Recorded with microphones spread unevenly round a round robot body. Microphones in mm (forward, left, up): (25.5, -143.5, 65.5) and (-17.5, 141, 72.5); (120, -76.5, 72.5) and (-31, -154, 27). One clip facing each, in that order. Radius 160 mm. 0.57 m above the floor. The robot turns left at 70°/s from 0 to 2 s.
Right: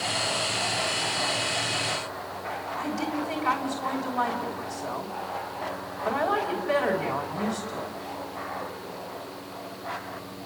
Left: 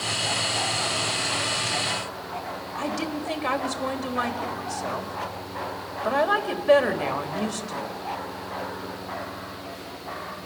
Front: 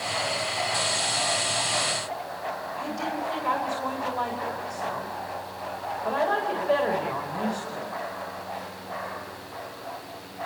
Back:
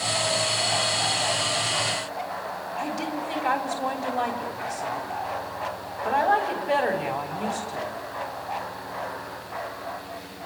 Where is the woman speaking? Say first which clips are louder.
Even, back 3 dB; 125° left, 3.5 m.